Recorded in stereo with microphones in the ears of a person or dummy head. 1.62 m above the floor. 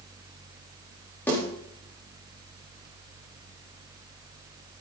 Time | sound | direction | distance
1.3 | a snare drum | 10° left (ahead or behind) | 4 m